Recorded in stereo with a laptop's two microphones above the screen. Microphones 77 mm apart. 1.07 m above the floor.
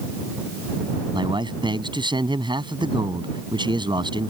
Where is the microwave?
No microwave in this recording.